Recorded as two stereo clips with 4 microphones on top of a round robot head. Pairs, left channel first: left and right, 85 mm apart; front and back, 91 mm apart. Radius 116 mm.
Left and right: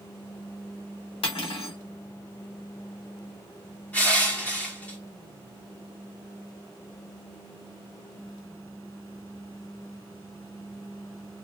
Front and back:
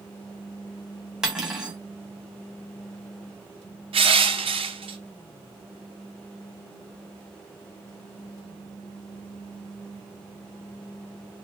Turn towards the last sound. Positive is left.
turn(degrees=165)